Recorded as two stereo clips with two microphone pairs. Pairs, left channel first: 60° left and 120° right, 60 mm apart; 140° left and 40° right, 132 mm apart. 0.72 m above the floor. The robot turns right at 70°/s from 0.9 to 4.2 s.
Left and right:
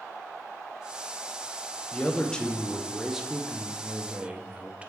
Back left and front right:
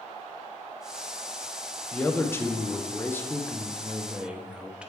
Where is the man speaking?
85° left, 0.6 m; by 4.9 s 115° right, 0.6 m.